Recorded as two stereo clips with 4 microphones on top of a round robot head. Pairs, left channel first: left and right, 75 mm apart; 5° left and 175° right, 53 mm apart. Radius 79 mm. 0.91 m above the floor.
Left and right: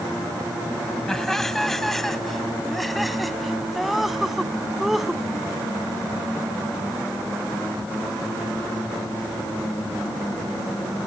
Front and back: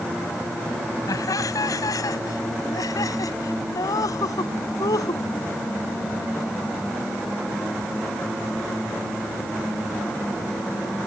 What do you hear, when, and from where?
1.1 s laughter: 5° left; by 5.2 s 5° right